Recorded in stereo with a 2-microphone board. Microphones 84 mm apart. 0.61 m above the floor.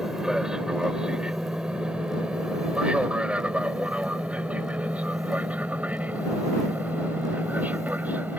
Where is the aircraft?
10° right (ahead or behind); by 8.4 s 20° right (ahead or behind).